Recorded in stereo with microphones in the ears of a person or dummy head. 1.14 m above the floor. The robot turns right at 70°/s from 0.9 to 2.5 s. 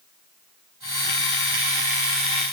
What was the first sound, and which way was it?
Only background noise.